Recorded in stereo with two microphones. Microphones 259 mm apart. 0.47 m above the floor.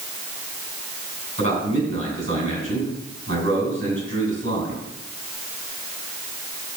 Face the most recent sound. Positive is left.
turn(degrees=-50)  # may be behind; listen again after turning